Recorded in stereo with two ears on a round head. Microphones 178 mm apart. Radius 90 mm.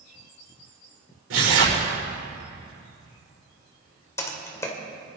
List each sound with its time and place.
1.3 s tearing paper: 80° right, 7 m
4.2 s typing on a keyboard: 15° left (ahead or behind), 2 m